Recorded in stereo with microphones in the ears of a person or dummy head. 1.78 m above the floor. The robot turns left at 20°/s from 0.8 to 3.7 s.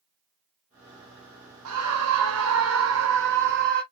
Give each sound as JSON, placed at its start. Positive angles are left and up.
{"t": 1.6, "sound": "a scream", "azimuth_deg": -85, "distance_m": 1.6}